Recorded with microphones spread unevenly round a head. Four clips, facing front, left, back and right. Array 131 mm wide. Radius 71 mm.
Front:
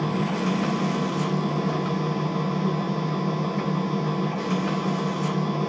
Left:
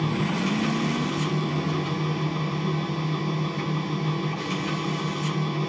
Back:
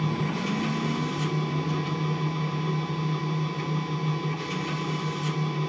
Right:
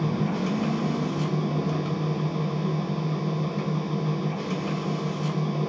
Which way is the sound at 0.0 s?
25° right.